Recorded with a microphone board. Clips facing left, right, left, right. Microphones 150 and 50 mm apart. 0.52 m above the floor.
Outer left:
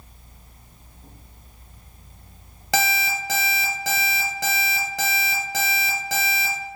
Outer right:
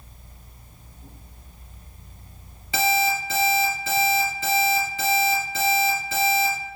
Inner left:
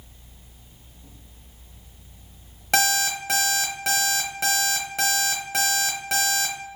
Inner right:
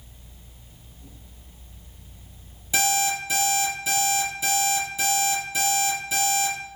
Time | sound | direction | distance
2.7 | an alarm clock | 80° left | 1.1 m